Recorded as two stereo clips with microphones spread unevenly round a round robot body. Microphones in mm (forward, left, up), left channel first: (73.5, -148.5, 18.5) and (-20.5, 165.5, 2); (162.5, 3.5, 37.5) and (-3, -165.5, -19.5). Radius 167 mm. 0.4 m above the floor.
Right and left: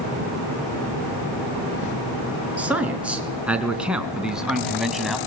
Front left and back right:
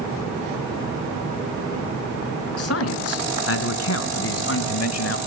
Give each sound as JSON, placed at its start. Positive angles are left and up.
{"t": 2.6, "sound": "a man speaking", "azimuth_deg": 20, "distance_m": 5.0}